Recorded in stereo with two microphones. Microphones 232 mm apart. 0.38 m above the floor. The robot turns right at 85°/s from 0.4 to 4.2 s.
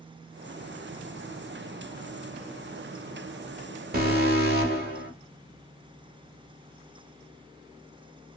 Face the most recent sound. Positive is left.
turn(degrees=-45)  # may be behind; listen again after turning